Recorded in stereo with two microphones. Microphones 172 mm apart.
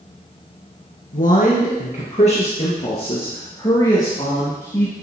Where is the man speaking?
60° left (ahead or behind), 2 m; by 4.9 s 20° left (ahead or behind), 3 m.